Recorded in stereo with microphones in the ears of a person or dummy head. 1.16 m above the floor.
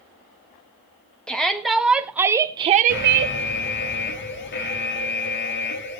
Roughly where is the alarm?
Left.